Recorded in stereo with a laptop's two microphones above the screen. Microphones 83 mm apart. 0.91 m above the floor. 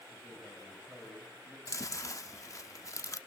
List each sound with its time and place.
0.1 s a man speaking: 20° right (ahead or behind), 4.5 m
1.7 s chewing: 40° left (ahead or behind), 0.9 m